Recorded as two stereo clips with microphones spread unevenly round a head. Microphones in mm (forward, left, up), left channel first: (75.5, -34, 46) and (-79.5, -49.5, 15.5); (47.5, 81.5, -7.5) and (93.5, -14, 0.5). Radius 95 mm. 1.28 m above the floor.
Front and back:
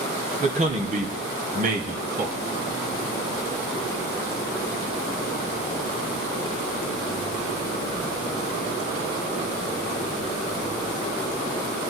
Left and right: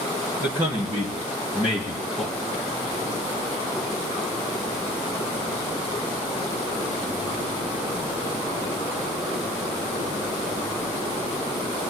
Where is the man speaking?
135° right, 2.5 m; by 2.4 s 155° right, 3 m.